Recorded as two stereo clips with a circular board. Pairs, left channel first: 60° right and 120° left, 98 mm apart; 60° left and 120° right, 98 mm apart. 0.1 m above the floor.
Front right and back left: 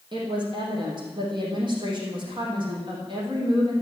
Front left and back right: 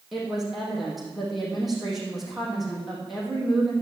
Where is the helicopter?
I don't hear a helicopter.